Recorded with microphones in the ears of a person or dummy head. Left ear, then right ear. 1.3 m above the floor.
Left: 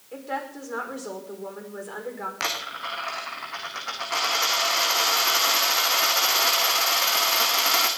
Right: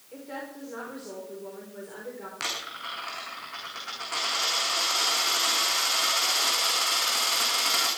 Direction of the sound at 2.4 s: 25° left (ahead or behind).